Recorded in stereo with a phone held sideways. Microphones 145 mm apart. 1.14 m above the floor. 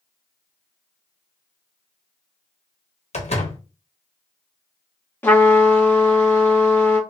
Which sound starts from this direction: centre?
A trumpet, at 5.2 s.